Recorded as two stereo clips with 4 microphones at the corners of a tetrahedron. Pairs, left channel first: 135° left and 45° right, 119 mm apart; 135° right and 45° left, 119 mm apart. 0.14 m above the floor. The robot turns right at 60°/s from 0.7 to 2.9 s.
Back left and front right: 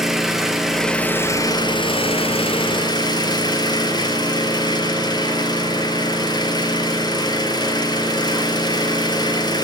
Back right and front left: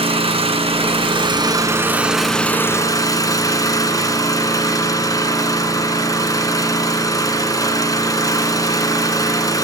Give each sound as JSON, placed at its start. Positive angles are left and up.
{"t": 0.0, "sound": "an engine running", "azimuth_deg": 45, "distance_m": 1.8}